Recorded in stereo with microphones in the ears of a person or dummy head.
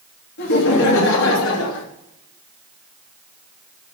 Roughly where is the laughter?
Left.